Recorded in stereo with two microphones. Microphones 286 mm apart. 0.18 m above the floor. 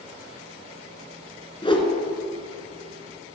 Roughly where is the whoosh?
Centre.